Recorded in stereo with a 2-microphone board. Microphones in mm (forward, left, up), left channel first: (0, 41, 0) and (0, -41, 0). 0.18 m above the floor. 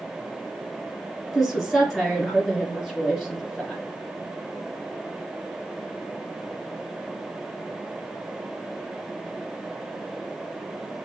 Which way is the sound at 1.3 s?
5° left (ahead or behind).